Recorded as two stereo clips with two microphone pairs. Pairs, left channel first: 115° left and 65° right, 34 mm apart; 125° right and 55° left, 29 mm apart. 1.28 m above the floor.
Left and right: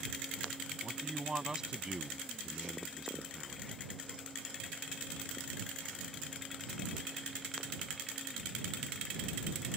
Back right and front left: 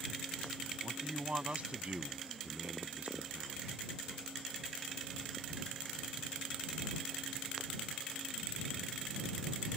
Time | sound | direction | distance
0.8 | a man speaking | straight ahead | ?